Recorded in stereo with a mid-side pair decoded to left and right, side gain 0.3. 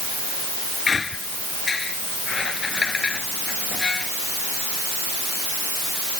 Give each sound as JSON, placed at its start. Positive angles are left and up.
{"t": 0.9, "sound": "a squeak", "azimuth_deg": 50}